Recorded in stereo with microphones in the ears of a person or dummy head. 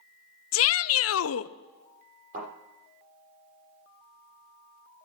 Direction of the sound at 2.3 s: 40° right (ahead or behind).